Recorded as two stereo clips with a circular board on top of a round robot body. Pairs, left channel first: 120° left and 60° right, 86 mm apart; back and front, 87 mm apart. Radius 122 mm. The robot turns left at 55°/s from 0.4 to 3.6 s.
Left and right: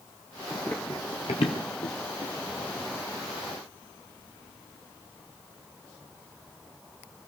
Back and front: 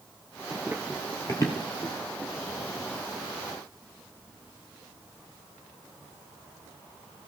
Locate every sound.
0.5 s running footsteps: 35° left, 1.1 m; by 2.7 s 60° left, 3 m